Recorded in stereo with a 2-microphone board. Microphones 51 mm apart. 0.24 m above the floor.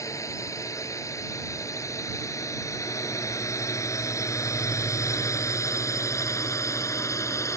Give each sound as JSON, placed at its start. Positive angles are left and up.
{"t": 0.0, "sound": "a drone", "side_deg": 70}